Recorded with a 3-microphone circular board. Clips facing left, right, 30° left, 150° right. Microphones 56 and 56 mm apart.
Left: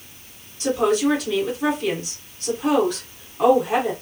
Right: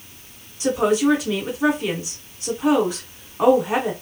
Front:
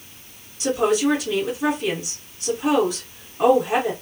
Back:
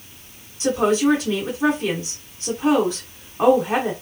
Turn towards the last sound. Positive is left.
turn(degrees=-150)